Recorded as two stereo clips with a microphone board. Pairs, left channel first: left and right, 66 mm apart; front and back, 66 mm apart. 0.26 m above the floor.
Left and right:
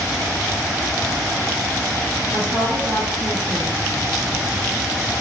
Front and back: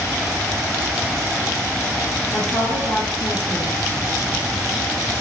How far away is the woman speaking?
About 5 m.